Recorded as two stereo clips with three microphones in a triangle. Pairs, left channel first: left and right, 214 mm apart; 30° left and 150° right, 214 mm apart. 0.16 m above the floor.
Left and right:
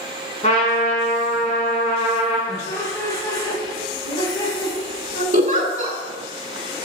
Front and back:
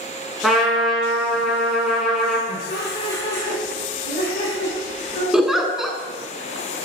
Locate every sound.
0.4 s a trumpet: 120° left, 1.1 m
2.5 s laughter: 20° left, 1.9 m
5.3 s a giggle: 60° right, 0.5 m